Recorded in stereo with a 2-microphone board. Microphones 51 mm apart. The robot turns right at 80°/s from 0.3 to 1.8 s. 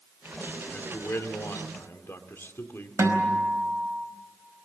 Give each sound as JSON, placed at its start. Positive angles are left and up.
{"t": 0.7, "sound": "a man speaking", "azimuth_deg": 25, "distance_m": 2.0}
{"t": 3.0, "sound": "a guitar", "side_deg": -75, "distance_m": 4.5}